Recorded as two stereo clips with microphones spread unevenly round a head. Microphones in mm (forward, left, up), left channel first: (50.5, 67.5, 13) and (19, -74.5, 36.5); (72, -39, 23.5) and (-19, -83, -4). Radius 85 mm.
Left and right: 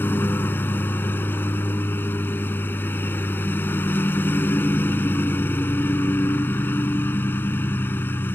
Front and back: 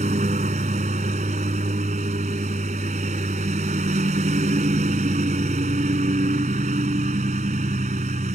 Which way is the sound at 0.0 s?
160° left.